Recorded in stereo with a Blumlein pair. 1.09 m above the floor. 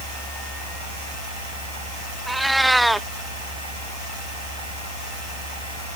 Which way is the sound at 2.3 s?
Straight ahead.